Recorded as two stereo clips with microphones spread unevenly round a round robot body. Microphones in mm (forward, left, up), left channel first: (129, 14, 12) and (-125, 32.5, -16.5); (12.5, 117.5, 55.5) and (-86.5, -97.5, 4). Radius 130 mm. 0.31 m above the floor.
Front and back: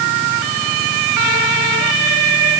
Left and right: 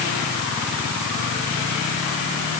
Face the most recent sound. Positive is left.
No sound to turn to.